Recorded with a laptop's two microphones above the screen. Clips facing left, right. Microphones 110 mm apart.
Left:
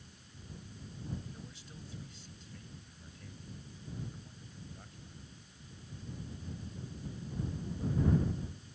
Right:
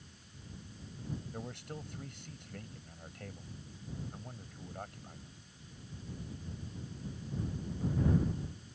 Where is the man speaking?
65° right (ahead or behind).